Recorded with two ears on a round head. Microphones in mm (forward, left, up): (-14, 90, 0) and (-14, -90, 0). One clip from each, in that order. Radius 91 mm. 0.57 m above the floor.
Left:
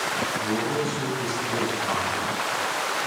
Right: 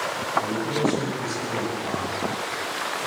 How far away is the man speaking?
About 7.5 m.